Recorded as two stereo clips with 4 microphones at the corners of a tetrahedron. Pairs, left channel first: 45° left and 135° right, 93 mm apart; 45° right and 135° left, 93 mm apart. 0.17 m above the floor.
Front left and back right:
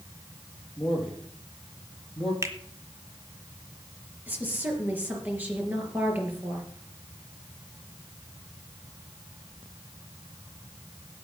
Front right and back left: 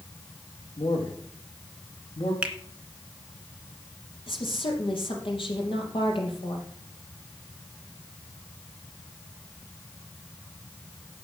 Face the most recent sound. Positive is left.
turn(degrees=-65)